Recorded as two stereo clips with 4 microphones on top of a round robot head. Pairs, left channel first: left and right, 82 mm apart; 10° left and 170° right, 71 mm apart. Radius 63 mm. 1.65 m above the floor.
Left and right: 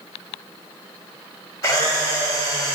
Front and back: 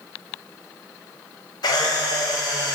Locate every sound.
1.6 s a camera shutter: 40° left, 0.9 m